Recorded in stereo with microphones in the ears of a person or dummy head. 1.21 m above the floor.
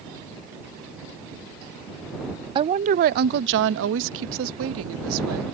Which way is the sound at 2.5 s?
30° right (ahead or behind).